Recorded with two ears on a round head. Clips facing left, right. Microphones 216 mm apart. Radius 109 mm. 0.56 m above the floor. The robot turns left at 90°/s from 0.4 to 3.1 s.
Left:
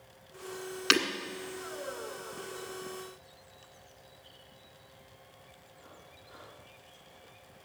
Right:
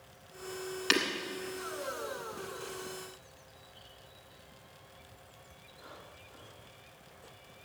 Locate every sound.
0.9 s breaking glass: 15° left (ahead or behind), 1.6 m; by 1.1 s centre (ahead or behind), 1.6 m